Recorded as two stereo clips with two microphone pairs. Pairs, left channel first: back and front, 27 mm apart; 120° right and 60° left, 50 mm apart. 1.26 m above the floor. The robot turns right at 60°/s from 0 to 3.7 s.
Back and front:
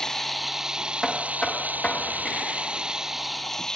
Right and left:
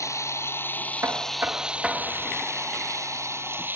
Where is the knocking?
85° left; by 2.5 s 170° left.